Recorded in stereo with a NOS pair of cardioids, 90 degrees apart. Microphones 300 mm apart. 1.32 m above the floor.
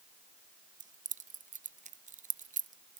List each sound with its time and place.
0.8 s keys jangling: 25° right, 0.6 m